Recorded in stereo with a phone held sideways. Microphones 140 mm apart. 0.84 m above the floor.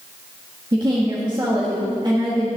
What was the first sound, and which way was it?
A woman speaking, 30° right (ahead or behind).